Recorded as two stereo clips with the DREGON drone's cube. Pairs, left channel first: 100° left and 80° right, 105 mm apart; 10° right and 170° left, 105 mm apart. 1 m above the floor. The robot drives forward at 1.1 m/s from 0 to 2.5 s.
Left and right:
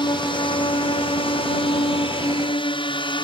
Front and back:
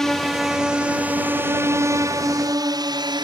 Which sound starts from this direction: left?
A drone, at 0.0 s.